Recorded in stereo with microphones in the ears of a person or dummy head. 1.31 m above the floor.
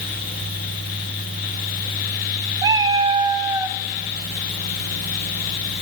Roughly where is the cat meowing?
Right.